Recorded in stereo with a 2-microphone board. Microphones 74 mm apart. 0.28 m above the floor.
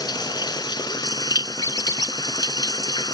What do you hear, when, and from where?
0.0 s running water: 70° left (ahead or behind)
1.6 s a squeak: 60° left (ahead or behind)